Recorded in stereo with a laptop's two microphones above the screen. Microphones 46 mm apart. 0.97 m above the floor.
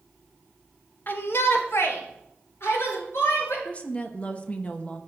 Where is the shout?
45° left (ahead or behind), 0.8 m; by 3.5 s 70° left (ahead or behind), 4 m.